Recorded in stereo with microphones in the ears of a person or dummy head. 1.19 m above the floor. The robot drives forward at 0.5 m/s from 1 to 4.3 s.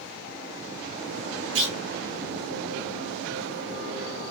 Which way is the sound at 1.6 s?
65° right (ahead or behind).